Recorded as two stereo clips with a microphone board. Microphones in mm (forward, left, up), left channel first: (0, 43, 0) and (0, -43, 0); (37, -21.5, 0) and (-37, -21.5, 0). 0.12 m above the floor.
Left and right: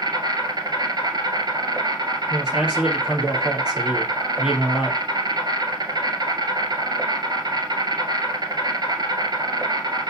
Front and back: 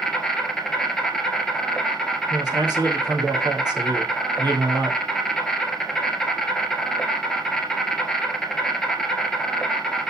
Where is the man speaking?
170° right, 3.5 m.